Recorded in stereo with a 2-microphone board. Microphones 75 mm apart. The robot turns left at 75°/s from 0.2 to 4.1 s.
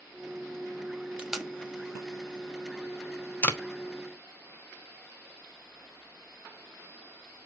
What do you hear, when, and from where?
1.2 s tape being pulled: 15° right (ahead or behind), 1.0 m; by 3.6 s 15° left (ahead or behind), 1.0 m